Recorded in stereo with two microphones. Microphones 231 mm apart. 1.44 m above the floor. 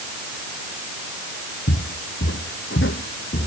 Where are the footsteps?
70° left (ahead or behind); by 3.5 s 50° left (ahead or behind).